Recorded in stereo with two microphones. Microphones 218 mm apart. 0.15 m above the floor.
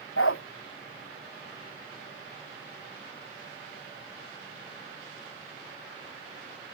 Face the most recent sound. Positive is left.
turn(degrees=75)  # may be behind; listen again after turning